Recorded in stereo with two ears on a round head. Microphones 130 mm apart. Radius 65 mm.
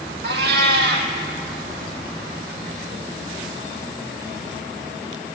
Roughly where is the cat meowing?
Right.